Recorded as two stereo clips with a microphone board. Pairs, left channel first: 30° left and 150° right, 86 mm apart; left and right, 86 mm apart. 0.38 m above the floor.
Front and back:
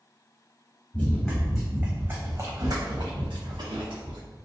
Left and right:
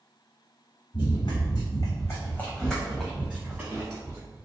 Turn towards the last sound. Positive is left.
turn(degrees=-150)